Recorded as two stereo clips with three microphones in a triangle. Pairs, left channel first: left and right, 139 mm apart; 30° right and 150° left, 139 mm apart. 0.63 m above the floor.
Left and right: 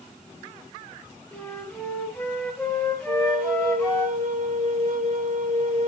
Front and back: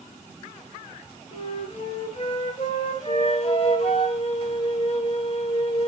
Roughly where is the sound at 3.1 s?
Right.